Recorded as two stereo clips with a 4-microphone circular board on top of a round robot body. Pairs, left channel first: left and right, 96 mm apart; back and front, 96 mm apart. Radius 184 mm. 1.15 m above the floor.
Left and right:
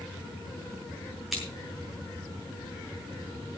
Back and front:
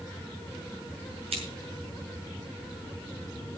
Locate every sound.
1.3 s scissors: straight ahead, 6.5 m